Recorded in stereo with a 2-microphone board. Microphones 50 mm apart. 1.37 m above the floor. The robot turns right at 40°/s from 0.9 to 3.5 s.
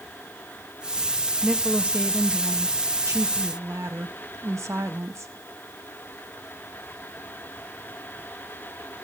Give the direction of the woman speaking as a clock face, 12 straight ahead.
6 o'clock.